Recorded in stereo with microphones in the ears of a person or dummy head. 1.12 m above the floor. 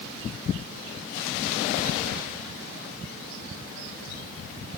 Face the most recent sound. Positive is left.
No sound to turn to.